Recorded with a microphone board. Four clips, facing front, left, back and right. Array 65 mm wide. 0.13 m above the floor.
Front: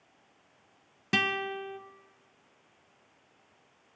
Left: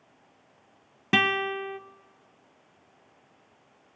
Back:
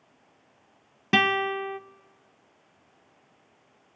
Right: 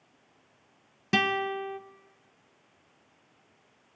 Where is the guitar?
135° left, 0.7 m.